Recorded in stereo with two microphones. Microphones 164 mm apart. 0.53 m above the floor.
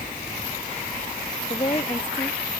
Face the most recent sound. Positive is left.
turn(degrees=30)  # may be behind; listen again after turning